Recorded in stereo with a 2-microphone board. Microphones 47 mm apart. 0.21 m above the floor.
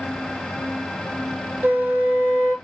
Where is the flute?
40° right (ahead or behind), 0.8 m.